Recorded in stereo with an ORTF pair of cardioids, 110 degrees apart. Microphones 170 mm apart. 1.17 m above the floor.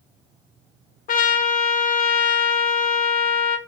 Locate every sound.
1.1 s a trumpet: 60° left, 0.6 m